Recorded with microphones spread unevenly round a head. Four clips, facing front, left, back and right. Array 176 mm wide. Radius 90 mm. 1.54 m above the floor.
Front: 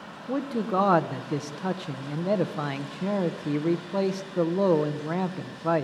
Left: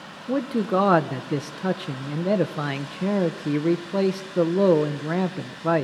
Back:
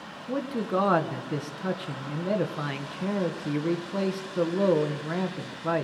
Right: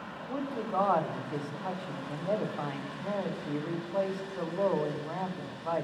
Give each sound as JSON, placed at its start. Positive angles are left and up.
{"t": 0.3, "sound": "a man speaking", "azimuth_deg": 80, "distance_m": 1.6}